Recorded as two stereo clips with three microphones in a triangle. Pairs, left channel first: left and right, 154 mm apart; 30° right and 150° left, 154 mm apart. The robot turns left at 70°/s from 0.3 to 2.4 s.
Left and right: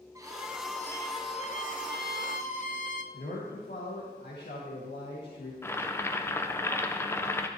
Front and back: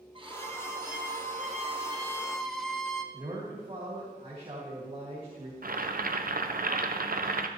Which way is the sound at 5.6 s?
160° left.